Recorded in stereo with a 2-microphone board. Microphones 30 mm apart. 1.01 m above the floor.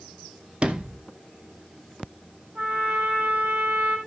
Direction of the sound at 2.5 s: 75° right (ahead or behind).